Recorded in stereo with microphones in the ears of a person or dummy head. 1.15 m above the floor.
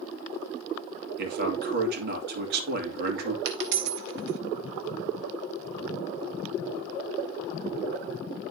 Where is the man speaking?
60° right (ahead or behind), 2.5 m.